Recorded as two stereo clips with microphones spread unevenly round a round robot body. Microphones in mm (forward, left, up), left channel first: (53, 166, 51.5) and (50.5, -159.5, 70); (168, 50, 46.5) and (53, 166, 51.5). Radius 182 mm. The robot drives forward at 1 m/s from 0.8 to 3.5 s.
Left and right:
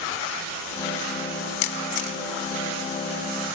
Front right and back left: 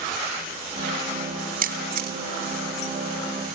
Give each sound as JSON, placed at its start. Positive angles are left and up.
{"t": 1.6, "sound": "a camera shutter", "azimuth_deg": 110, "distance_m": 2.0}